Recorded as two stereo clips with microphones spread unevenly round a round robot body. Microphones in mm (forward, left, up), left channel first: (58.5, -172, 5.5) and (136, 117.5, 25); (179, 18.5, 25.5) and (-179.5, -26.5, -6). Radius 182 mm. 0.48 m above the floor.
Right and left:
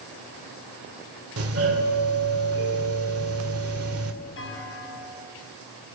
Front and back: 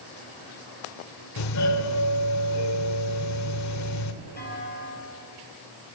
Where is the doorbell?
45° left, 2.5 m.